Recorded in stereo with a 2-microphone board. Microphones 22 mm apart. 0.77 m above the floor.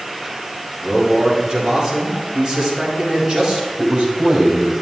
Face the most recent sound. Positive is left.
turn(degrees=-45)  # may be behind; listen again after turning